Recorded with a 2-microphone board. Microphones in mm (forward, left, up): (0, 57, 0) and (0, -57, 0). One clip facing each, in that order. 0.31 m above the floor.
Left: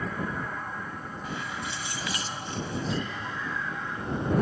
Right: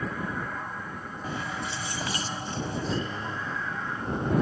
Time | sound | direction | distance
1.2 | keys jangling | 35° right (ahead or behind) | ?
2.9 | whispering | 35° right (ahead or behind) | ?